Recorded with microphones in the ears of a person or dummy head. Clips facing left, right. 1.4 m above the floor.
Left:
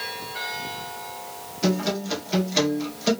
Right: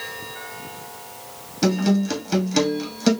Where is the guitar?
55° right (ahead or behind), 1.7 m.